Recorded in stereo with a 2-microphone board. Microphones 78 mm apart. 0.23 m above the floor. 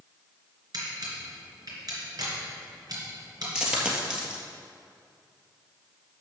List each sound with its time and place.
0.7 s a camera shutter: 55° right (ahead or behind), 3 m
3.5 s a dropped coin: 10° right (ahead or behind), 1.7 m